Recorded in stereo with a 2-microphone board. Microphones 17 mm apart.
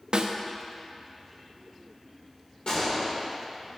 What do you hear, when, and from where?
0.1 s a snare drum: 75° right (ahead or behind), 0.8 m
2.7 s a gunshot: 70° left (ahead or behind), 2.5 m